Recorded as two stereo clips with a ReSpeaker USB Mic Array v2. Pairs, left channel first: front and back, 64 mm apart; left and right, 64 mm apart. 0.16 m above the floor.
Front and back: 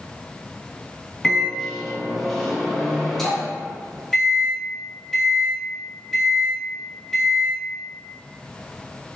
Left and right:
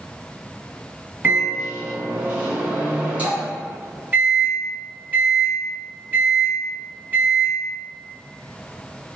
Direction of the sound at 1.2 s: 80° right.